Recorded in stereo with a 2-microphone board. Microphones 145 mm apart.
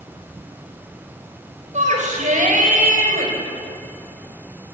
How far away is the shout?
About 7 m.